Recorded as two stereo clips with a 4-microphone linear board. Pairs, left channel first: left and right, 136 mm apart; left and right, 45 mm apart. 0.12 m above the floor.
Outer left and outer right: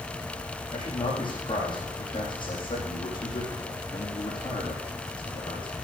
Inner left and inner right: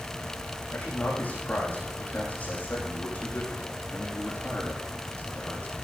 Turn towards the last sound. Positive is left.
turn(degrees=40)  # may be behind; listen again after turning